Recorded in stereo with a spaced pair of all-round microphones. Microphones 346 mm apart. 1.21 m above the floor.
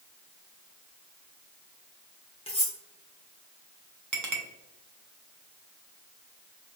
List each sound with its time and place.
2.5 s cutlery clinking: 15° left (ahead or behind), 0.7 m
4.1 s a clink: 60° right (ahead or behind), 0.6 m